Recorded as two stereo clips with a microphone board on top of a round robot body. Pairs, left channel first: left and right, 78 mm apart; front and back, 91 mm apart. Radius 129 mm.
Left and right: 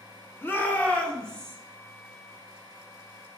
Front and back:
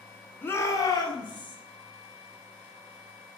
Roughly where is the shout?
Ahead left.